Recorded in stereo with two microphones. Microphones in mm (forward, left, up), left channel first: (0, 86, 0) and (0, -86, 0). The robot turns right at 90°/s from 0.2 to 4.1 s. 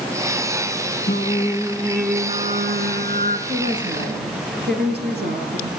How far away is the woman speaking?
About 4.5 m.